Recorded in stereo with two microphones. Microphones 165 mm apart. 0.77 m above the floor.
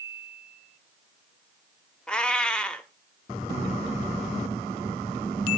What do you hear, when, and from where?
2.1 s a cat meowing: 5° left (ahead or behind), 0.7 m